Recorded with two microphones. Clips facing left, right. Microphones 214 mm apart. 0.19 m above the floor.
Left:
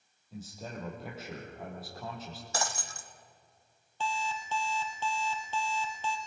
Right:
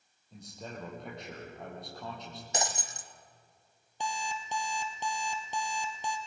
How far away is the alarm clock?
About 2.5 m.